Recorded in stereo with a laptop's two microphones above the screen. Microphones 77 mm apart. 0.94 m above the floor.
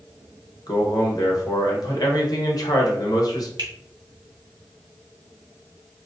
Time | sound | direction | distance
0.7 | a man speaking | 55° left (ahead or behind) | 1.1 m
3.6 | a finger snap | 75° right (ahead or behind) | 1.7 m